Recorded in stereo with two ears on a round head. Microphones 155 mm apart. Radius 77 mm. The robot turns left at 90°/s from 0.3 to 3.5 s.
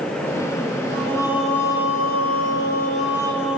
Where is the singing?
130° right, 0.9 m; by 3.6 s 5° right, 0.9 m.